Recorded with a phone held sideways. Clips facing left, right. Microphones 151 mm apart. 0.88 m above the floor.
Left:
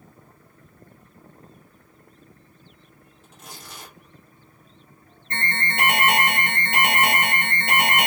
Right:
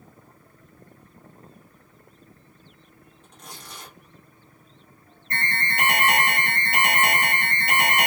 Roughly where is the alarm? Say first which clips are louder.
Left 1 dB; left.